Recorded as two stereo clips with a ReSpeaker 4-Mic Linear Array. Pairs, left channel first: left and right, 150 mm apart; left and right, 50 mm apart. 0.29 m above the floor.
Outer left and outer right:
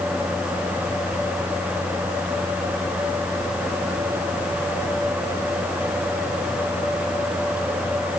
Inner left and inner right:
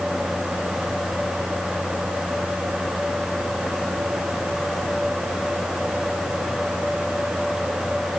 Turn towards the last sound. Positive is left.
No sound to turn to.